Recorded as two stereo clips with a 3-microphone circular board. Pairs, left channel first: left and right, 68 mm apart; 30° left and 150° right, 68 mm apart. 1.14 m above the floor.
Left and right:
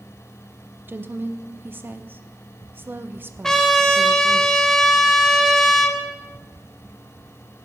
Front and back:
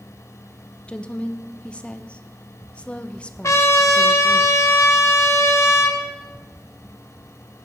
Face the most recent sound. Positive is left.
turn(degrees=10)